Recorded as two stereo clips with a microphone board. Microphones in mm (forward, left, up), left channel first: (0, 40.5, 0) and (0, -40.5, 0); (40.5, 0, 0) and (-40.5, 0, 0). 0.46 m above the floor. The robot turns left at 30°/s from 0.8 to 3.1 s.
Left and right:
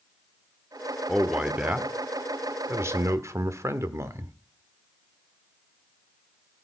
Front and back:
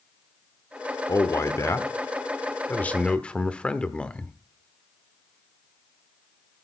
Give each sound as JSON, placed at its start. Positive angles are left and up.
{"t": 1.1, "sound": "a man speaking", "azimuth_deg": -10, "distance_m": 1.0}